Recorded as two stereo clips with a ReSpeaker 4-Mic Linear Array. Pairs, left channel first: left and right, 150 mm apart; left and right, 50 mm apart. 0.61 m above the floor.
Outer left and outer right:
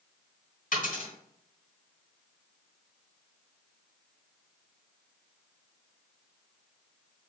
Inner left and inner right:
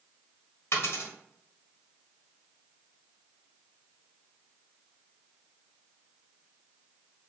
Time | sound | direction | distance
0.7 | a dropped coin | 65° left (ahead or behind) | 1.3 m